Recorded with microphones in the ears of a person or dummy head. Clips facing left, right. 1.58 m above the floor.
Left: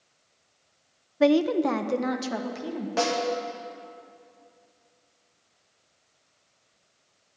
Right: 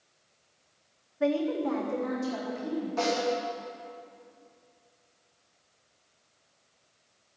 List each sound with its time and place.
1.2 s a woman speaking: 65° left (ahead or behind), 0.6 m; by 2.9 s 80° left, 2 m
3.0 s a snare drum: 85° left, 3 m